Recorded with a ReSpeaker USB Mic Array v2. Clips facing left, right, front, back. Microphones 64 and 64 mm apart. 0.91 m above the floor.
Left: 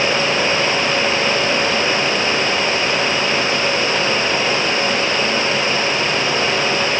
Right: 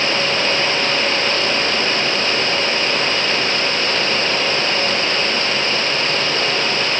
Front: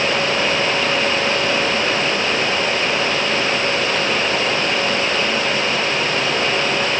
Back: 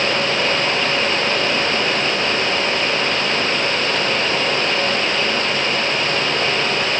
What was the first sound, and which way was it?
Only background noise.